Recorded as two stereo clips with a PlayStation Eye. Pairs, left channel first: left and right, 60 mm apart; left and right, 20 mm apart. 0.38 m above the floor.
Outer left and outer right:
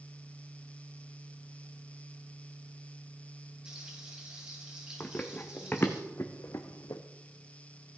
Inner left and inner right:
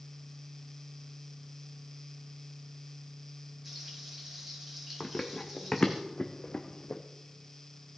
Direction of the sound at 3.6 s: 15° right (ahead or behind).